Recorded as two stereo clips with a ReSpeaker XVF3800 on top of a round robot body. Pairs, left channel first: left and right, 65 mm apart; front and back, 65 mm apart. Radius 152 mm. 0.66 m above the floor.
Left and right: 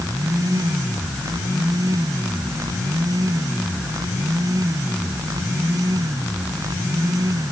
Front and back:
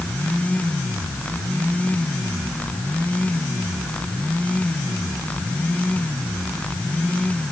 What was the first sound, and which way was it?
Only background noise.